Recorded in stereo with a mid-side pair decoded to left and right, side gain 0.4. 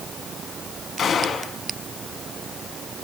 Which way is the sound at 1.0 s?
50° left.